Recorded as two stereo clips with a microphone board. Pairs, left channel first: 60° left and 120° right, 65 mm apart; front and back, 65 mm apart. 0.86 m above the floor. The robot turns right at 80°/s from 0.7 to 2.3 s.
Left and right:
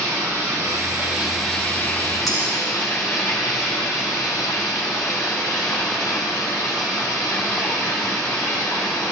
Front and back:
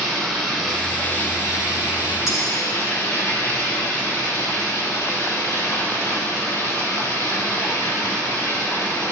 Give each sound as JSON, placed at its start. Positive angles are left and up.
{"t": 0.0, "sound": "running water", "azimuth_deg": -95, "distance_m": 2.5}
{"t": 2.3, "sound": "cutlery clinking", "azimuth_deg": -35, "distance_m": 3.0}